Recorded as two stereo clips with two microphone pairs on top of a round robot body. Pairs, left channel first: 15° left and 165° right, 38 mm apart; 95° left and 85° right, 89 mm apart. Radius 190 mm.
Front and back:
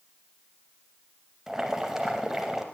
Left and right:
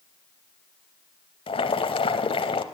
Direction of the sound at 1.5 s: 120° left.